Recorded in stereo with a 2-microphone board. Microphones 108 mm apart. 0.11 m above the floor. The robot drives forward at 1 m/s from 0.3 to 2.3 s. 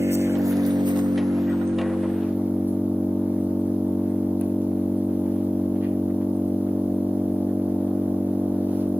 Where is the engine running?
25° right (ahead or behind), 0.8 m; by 9.0 s 15° right (ahead or behind), 1.5 m.